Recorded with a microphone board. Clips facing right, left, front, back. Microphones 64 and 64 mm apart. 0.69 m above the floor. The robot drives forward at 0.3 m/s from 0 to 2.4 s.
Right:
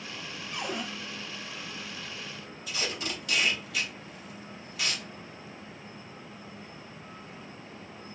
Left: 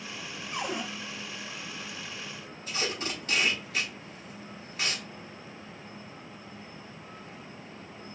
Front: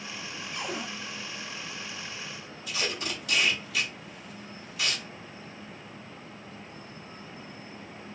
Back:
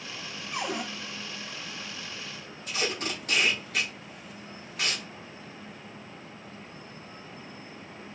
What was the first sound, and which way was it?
A cupboard door, 160° left.